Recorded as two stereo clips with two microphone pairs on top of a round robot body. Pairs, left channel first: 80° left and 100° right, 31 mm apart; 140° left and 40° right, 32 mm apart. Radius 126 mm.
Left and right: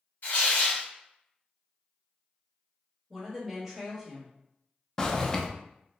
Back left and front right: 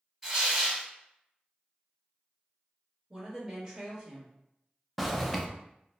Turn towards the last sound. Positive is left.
turn(degrees=25)